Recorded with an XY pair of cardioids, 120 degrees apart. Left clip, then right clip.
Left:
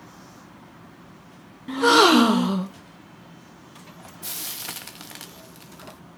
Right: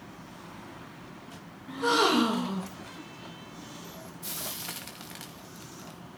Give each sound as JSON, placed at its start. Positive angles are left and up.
{"t": 1.7, "sound": "a gasp", "azimuth_deg": 60, "distance_m": 1.5}
{"t": 4.2, "sound": "frying", "azimuth_deg": 35, "distance_m": 2.0}